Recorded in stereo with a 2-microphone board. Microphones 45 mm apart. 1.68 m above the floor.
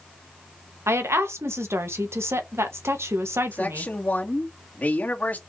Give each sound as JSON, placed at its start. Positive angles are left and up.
{"t": 0.9, "sound": "a woman speaking", "side_deg": -70, "distance_m": 1.7}
{"t": 3.5, "sound": "a man speaking", "side_deg": 35, "distance_m": 2.5}